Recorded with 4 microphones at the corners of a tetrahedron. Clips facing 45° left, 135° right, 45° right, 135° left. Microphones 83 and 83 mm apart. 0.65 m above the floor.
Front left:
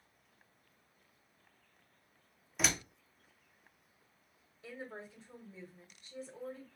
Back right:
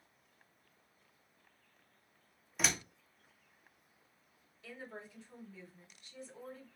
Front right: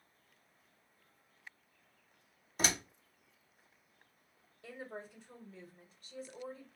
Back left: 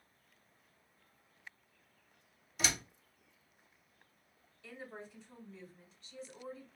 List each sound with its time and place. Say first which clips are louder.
2.6 s a door slam: front left 1 dB, front right 2 dB; 45° right, 0.7 m
4.6 s a woman speaking: front left 2 dB, front right 2 dB; 10° right, 1.6 m